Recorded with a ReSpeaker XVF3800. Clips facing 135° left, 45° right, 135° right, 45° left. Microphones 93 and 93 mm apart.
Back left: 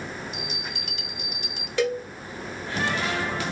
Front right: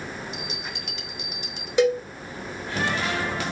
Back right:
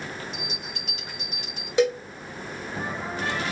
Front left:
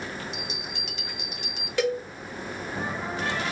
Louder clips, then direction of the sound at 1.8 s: Front right 5 dB, back right 4 dB; 95° right.